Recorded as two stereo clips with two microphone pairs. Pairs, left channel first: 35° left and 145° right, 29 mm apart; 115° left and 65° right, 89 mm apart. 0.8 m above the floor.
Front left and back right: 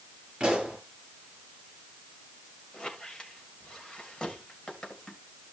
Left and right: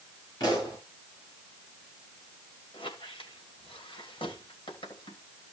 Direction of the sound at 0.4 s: 155° left.